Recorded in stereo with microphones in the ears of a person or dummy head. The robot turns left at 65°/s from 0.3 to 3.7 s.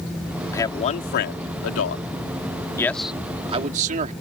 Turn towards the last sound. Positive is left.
turn(degrees=-45)  # may be behind; listen again after turning